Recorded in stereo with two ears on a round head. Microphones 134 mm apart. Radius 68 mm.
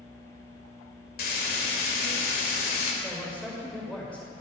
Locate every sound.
1.2 s frying: 65° left (ahead or behind), 2.5 m
3.0 s a man speaking: 10° left (ahead or behind), 5 m